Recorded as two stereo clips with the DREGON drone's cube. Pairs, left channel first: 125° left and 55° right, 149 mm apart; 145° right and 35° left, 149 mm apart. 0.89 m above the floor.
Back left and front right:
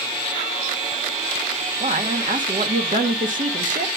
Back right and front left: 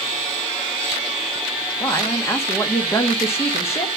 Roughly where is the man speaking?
Right.